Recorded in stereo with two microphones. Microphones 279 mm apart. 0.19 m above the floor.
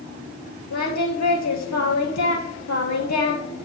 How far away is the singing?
About 1.3 m.